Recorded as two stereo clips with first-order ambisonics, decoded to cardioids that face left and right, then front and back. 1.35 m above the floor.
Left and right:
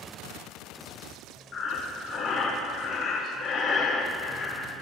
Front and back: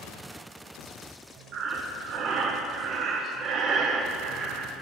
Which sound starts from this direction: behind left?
Breathing, at 1.5 s.